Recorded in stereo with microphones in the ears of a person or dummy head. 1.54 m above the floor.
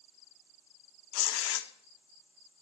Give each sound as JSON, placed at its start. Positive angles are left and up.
{"t": 1.1, "sound": "tearing paper", "side_deg": 75, "distance_m": 0.7}